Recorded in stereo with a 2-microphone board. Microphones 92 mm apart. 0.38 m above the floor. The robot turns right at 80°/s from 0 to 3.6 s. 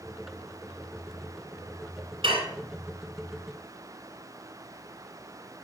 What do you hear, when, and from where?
2.2 s dishes clattering: 65° right (ahead or behind), 2 m; by 2.5 s 75° right (ahead or behind), 2 m